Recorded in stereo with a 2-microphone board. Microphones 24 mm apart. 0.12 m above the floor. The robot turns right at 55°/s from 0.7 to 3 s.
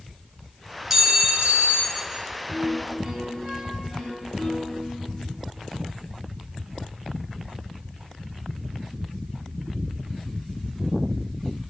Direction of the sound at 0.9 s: 165° right.